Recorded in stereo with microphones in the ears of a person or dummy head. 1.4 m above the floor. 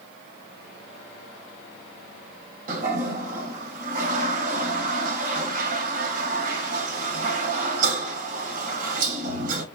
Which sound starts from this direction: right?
A toilet flushing, at 2.7 s.